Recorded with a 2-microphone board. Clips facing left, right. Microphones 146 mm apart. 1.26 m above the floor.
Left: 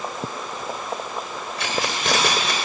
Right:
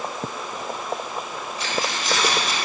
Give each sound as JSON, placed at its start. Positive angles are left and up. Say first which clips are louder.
{"t": 1.6, "sound": "keys jangling", "louder": "left 2 dB", "side_deg": 80, "distance_m": 4.0}